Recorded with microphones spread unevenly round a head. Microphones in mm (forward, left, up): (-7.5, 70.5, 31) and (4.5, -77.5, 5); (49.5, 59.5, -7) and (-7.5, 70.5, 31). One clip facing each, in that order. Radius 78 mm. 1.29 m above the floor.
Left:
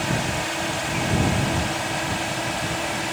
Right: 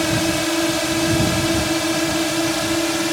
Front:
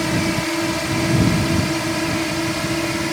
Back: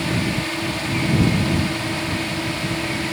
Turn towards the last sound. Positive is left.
turn(degrees=-65)